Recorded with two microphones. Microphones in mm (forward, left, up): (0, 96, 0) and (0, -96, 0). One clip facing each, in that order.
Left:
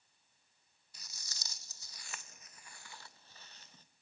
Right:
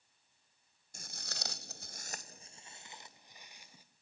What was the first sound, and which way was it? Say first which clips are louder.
Footsteps: right 12 dB; 45° right (ahead or behind).